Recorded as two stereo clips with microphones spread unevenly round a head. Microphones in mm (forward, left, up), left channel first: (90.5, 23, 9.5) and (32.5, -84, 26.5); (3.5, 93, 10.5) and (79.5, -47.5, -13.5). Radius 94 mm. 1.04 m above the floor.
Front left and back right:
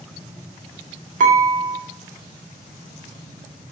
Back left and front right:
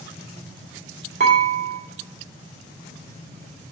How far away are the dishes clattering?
About 1.6 m.